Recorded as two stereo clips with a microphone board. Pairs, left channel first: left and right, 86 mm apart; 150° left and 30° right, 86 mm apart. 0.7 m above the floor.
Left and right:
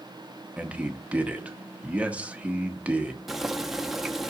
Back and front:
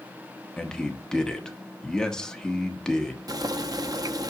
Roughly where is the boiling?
Ahead.